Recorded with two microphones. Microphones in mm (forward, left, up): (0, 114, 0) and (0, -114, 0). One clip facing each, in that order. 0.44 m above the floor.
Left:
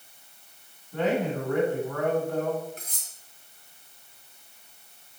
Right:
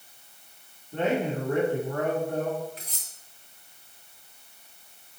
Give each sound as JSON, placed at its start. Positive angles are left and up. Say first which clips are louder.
{"t": 0.9, "sound": "a man speaking", "louder": "even", "side_deg": -25, "distance_m": 4.0}
{"t": 2.8, "sound": "cutlery clinking", "louder": "even", "side_deg": 50, "distance_m": 2.5}